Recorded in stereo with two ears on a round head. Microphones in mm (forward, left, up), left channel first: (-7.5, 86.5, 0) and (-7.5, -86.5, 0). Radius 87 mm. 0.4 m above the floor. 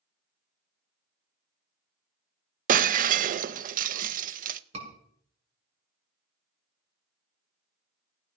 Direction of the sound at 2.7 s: 45° right (ahead or behind).